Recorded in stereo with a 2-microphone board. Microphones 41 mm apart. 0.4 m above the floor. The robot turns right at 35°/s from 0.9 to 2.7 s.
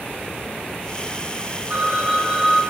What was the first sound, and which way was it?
A phone ringing, 35° right.